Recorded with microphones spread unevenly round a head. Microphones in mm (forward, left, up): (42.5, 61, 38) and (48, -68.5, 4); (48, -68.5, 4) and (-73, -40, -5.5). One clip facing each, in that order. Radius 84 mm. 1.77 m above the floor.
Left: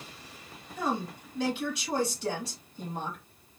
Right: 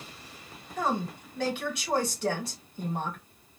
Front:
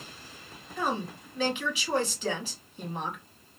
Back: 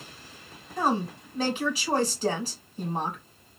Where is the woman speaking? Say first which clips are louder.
Right 2 dB, back 5 dB; 140° right, 2.0 m.